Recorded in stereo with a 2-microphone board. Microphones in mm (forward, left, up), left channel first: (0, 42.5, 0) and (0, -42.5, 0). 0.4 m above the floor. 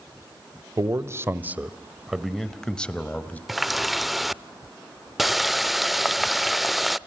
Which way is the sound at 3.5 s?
Centre (ahead or behind).